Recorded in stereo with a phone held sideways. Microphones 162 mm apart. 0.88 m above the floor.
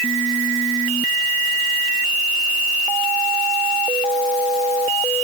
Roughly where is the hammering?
No hammering in this recording.